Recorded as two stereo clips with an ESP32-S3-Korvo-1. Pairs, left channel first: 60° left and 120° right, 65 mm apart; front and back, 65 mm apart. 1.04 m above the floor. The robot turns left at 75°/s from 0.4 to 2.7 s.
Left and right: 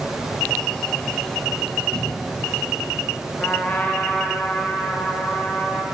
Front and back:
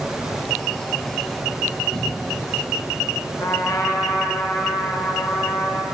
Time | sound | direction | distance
1.9 | a cupboard door | 110° right | 1.3 m
3.4 | a trumpet | straight ahead | 0.8 m